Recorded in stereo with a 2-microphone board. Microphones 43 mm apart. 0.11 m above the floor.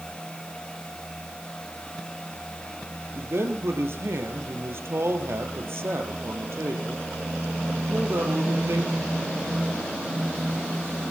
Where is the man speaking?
60° right (ahead or behind), 2.5 m.